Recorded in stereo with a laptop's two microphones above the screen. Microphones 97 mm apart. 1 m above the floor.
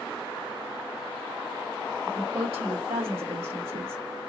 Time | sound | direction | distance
2.1 | a woman speaking | 75° right (ahead or behind) | 1.4 m